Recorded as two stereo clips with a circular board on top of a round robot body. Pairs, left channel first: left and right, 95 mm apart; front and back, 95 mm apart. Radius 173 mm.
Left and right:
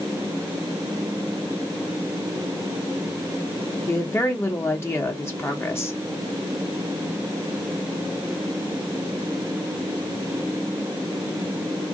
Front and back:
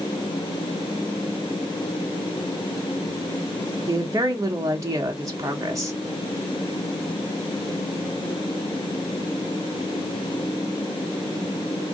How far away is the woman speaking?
About 1.3 m.